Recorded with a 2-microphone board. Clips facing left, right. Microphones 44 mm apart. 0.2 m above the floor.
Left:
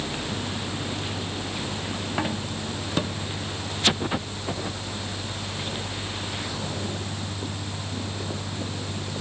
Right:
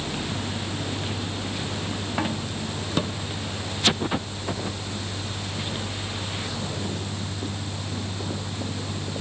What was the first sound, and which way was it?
Only background noise.